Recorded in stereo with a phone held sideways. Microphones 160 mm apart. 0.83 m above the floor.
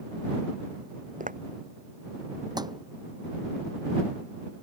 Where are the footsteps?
55° right (ahead or behind).